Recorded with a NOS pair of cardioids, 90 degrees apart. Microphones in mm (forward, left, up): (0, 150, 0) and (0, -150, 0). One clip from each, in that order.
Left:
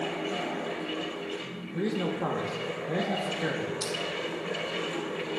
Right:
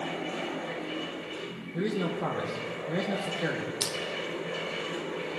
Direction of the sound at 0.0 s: 55° left.